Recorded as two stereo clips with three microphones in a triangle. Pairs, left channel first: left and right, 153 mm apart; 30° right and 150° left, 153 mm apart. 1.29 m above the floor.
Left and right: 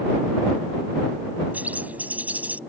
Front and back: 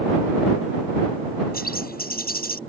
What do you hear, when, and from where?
1.5 s a bird: 10° right